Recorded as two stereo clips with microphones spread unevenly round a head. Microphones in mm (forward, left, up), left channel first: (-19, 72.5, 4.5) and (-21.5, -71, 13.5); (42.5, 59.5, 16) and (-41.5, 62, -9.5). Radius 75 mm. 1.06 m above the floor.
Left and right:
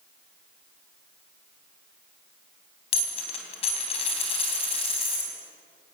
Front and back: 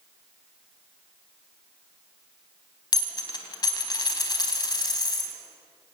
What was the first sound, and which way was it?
A dropped coin, 35° left.